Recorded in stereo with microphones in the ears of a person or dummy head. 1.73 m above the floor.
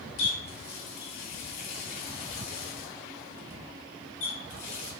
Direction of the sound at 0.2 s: 45° left (ahead or behind).